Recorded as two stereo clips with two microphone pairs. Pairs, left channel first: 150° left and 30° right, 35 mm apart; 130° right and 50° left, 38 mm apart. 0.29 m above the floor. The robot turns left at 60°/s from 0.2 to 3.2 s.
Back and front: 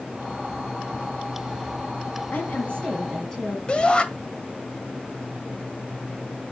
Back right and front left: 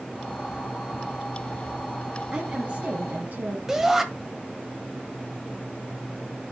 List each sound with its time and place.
2.3 s a woman speaking: 120° left, 2 m; by 3.6 s 70° left, 2 m
3.7 s a shout: 120° left, 1.7 m